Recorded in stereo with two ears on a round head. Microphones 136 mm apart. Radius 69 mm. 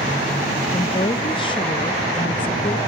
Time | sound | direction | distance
0.7 | a woman speaking | 30° left (ahead or behind) | 0.6 m